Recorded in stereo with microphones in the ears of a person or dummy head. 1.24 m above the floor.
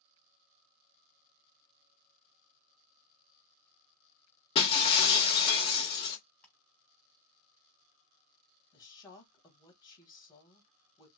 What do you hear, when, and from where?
4.5 s breaking glass: 30° left (ahead or behind), 0.9 m
6.4 s ticking: 10° left (ahead or behind), 1.4 m
8.7 s a woman speaking: 25° left (ahead or behind), 1.0 m